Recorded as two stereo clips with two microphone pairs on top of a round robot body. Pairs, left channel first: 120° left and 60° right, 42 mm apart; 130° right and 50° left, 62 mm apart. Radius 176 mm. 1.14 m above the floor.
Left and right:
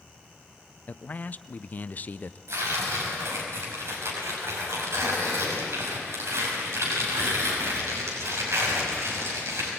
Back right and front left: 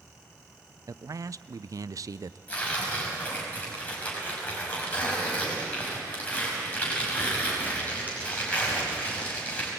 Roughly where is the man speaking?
Ahead left.